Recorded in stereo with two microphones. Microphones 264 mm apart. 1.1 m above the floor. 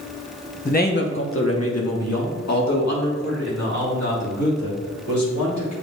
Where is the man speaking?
25° left (ahead or behind), 1.0 m; by 5.7 s 80° left, 4.5 m.